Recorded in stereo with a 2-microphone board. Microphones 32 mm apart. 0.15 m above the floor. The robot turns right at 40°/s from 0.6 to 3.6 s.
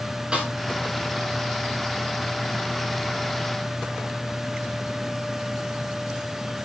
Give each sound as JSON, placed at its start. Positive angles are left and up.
{"t": 0.3, "sound": "a snare drum", "side_deg": -30, "distance_m": 9.0}